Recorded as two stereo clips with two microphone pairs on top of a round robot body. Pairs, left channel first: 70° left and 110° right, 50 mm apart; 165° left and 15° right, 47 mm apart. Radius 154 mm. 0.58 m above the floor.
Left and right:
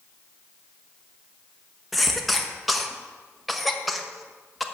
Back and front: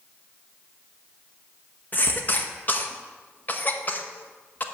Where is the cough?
160° left, 1.3 m.